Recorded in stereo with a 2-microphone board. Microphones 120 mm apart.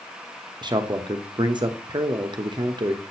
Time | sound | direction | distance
0.6 | a man speaking | 40° right (ahead or behind) | 0.8 m